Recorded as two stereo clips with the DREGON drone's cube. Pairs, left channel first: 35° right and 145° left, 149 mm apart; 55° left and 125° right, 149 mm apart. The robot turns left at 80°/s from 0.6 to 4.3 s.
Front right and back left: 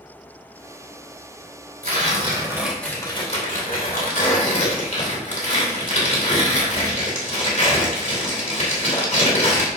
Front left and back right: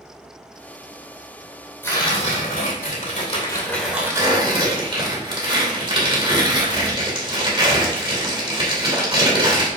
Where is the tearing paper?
130° left, 3 m; by 9.7 s 65° right, 3 m.